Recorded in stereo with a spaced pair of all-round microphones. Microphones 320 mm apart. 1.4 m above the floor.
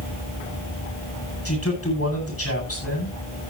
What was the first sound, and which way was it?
A man speaking, 45° left (ahead or behind).